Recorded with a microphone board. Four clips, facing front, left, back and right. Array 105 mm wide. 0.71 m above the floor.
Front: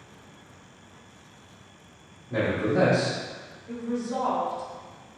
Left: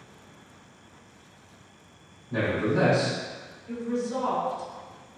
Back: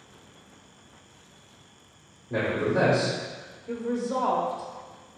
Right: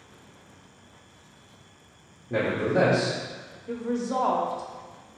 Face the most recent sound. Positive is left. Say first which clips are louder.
# right 1 dB, back 2 dB
turn(degrees=-120)